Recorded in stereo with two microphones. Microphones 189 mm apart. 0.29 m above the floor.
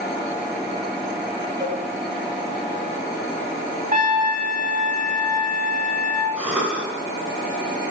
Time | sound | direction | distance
1.6 | a cowbell | 20° right (ahead or behind) | 1.3 m
3.9 | a trumpet | 45° right (ahead or behind) | 0.9 m
6.4 | a cough | 5° right (ahead or behind) | 3 m